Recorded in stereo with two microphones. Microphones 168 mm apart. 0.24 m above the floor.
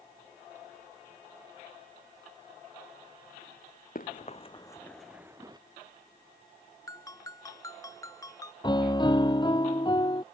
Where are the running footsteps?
55° left (ahead or behind); by 5.6 s 25° right (ahead or behind).